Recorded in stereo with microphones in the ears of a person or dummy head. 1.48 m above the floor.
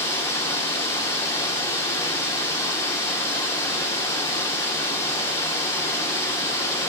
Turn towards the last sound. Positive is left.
turn(degrees=10)  # may be behind; listen again after turning